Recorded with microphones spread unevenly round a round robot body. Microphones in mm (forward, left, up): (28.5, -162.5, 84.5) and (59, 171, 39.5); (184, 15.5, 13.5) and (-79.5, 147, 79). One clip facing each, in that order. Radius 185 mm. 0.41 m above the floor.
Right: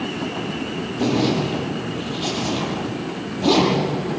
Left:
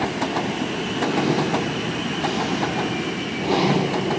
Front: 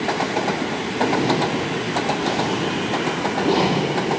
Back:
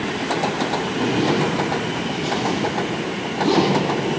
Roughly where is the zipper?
Behind right.